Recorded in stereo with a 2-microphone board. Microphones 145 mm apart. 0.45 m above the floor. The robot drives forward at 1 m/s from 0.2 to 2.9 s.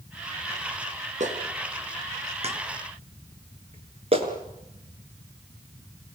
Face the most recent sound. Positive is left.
turn(degrees=-40)  # may be behind; listen again after turning